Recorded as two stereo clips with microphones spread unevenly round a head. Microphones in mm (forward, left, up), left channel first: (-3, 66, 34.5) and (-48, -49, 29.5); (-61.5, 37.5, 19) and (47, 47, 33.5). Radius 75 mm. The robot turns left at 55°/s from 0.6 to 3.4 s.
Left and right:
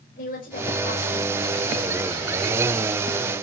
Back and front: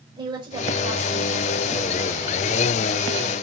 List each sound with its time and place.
0.2 s a woman speaking: 50° left, 5 m; by 1.6 s 5° right, 5 m